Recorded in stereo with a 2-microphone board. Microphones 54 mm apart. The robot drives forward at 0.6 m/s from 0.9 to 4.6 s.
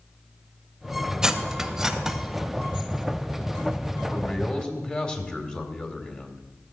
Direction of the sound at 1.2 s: 10° right (ahead or behind).